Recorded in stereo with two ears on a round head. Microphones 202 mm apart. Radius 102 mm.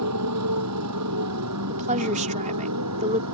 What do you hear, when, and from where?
0.0 s a motorcycle: 85° right
1.7 s a woman speaking: 35° right (ahead or behind)